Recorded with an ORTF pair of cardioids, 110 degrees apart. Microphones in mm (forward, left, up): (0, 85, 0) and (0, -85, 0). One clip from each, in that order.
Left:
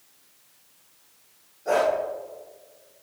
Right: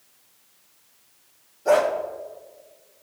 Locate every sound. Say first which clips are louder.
1.6 s a dog barking: right 4 dB; 45° right, 4 m